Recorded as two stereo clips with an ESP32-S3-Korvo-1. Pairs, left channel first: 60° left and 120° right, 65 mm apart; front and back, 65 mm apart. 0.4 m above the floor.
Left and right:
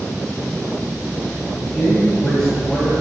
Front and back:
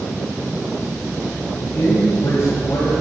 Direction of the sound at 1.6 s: 20° right.